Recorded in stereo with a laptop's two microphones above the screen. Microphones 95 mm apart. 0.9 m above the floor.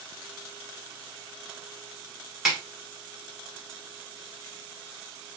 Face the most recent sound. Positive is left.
turn(degrees=-5)  # may be behind; listen again after turning